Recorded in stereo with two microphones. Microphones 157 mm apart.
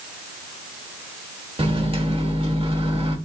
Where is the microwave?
35° right (ahead or behind), 1.0 m.